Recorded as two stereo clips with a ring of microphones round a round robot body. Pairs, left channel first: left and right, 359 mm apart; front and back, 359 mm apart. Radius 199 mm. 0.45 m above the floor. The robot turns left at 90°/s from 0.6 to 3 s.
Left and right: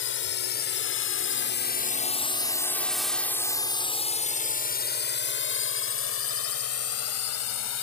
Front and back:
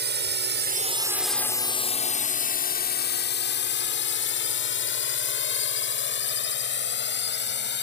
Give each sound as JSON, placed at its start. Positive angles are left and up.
{"t": 0.0, "sound": "a drone", "azimuth_deg": 130}